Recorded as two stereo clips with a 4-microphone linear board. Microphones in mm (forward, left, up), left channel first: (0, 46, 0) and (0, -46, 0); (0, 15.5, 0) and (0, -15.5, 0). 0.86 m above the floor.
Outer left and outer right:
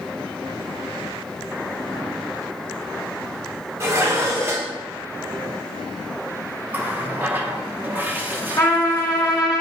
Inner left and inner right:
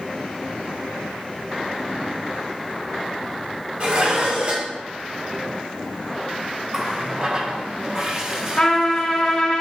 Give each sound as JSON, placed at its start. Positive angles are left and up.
{"t": 3.8, "sound": "dishes clattering", "side_deg": -30, "distance_m": 1.4}
{"t": 6.7, "sound": "a running tap", "side_deg": -20, "distance_m": 0.8}
{"t": 8.6, "sound": "a trumpet", "side_deg": 35, "distance_m": 3.0}